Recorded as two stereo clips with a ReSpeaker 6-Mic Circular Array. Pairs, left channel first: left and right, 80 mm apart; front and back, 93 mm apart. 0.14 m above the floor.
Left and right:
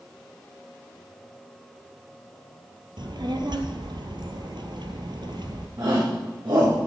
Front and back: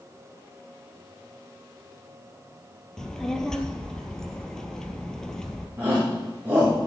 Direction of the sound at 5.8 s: 105° right.